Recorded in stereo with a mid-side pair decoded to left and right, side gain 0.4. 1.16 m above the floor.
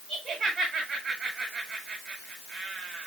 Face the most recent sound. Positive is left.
turn(degrees=-50)